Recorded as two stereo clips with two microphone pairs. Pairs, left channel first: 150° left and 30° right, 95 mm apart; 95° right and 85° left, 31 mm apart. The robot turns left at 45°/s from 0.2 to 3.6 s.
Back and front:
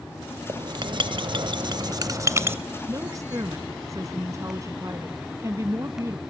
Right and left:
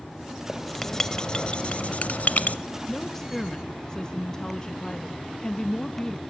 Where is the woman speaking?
15° right, 0.8 m; by 6.2 s 45° right, 0.8 m.